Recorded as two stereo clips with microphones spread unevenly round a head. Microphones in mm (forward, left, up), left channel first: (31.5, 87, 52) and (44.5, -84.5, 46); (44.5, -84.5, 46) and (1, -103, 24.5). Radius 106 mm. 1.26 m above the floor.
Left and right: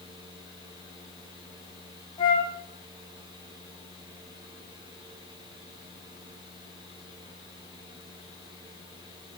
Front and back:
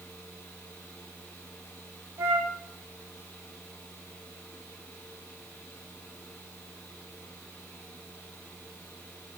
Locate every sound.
0.0 s a fan: 25° right, 9.5 m
2.2 s a flute: 165° left, 1.9 m